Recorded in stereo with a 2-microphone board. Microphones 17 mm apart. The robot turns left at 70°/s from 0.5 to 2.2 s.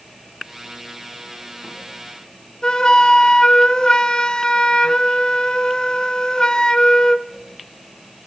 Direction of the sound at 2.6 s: 55° left (ahead or behind).